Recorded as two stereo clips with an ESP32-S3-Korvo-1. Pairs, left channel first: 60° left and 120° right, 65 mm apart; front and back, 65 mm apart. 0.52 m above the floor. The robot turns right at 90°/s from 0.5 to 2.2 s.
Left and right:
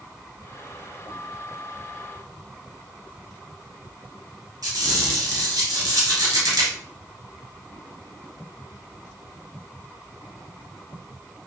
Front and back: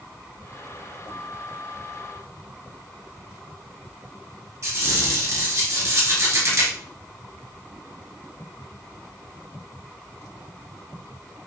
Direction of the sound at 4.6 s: 140° right.